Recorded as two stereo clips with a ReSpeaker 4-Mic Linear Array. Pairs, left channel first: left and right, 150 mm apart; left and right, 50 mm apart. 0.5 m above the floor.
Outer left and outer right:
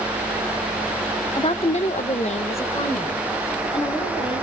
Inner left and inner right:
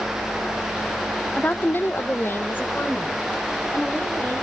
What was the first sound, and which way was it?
A woman speaking, 35° left (ahead or behind).